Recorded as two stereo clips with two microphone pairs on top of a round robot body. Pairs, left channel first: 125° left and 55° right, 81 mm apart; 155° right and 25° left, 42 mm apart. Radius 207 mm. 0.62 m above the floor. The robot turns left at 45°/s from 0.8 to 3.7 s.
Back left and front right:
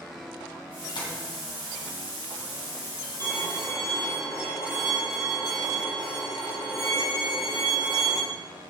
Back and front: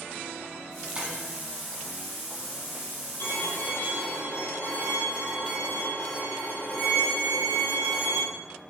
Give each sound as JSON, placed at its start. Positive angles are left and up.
{"t": 0.9, "sound": "tapping", "azimuth_deg": 95, "distance_m": 2.0}
{"t": 3.2, "sound": "a violin", "azimuth_deg": 180, "distance_m": 4.0}